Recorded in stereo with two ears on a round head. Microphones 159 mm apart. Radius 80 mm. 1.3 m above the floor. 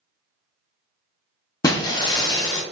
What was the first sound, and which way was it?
Breaking glass, 20° left (ahead or behind).